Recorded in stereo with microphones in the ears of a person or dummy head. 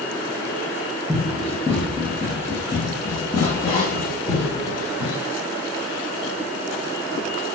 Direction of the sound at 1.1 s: 5° left (ahead or behind).